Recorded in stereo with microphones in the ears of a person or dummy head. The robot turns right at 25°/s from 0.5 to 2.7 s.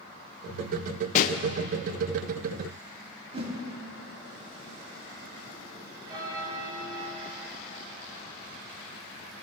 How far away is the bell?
About 3 m.